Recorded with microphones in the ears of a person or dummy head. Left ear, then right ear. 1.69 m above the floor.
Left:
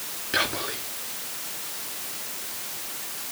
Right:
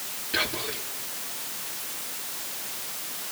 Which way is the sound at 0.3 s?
40° left (ahead or behind).